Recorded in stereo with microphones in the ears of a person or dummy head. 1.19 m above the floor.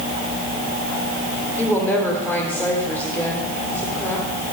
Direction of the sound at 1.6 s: 5° left (ahead or behind).